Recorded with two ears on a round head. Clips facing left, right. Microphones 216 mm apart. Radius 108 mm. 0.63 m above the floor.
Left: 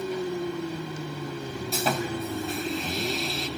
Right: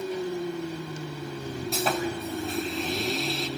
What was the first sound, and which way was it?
Sawing, centre (ahead or behind).